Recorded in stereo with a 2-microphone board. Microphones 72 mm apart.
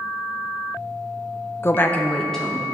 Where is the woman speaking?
35° left (ahead or behind), 0.5 m; by 2.6 s 5° left (ahead or behind), 1.4 m.